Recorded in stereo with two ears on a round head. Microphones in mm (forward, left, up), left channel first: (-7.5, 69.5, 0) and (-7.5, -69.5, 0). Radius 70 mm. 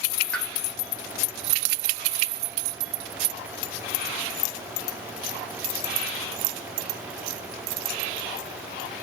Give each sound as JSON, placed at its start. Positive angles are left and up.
{"t": 0.3, "sound": "a pop", "side_deg": 5, "distance_m": 0.8}